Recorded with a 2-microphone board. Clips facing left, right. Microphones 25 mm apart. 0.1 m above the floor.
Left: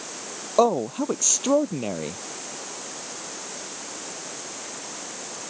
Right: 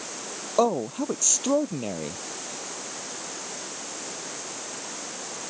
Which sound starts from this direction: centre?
A man speaking, at 0.6 s.